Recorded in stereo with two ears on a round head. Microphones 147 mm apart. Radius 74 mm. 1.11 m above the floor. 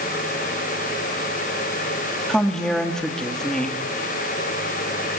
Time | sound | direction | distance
2.3 | a woman speaking | 5° left (ahead or behind) | 2.0 m